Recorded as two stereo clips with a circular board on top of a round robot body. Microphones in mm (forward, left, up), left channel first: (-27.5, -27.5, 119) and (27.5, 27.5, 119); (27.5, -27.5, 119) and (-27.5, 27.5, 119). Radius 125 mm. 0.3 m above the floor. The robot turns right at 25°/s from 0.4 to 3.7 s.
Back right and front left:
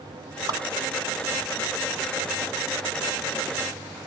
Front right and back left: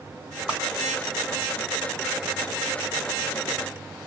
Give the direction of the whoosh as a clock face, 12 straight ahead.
10 o'clock.